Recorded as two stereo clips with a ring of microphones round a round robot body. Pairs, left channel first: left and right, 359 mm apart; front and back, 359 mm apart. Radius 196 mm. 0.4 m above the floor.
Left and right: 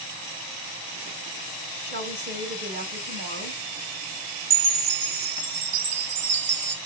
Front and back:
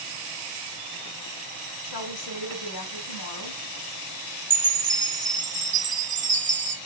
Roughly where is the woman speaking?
Ahead right.